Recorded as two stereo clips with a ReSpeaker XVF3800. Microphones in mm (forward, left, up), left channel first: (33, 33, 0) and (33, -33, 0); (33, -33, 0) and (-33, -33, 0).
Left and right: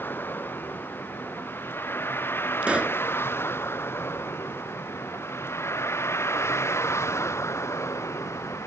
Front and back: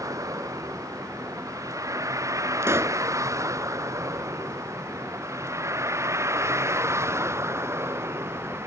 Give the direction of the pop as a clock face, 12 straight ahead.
5 o'clock.